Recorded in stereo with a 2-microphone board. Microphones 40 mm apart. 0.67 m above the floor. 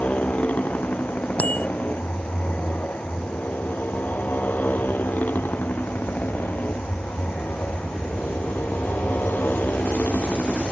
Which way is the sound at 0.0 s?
45° left (ahead or behind).